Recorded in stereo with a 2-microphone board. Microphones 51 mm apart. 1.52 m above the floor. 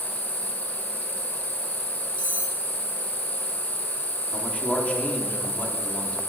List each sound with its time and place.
0.0 s an insect: 60° left (ahead or behind), 1.8 m
2.2 s cutlery clinking: 55° right (ahead or behind), 1.9 m
4.3 s a man speaking: 30° left (ahead or behind), 1.3 m